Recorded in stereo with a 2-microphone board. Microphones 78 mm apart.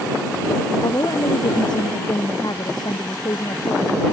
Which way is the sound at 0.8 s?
60° left (ahead or behind).